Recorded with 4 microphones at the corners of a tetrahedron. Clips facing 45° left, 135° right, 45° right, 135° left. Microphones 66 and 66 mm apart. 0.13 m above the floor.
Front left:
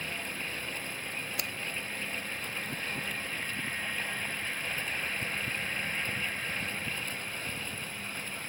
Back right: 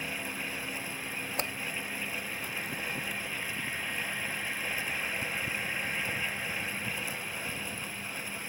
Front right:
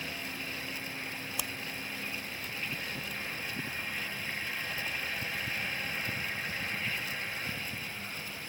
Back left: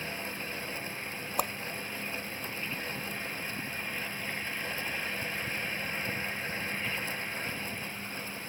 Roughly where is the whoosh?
Behind.